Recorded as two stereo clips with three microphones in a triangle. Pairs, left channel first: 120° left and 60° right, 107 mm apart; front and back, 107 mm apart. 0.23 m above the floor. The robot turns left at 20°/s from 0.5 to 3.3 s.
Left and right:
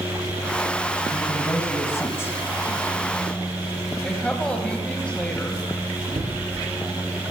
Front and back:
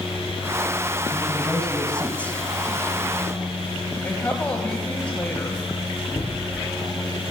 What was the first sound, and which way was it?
A man speaking, 90° left.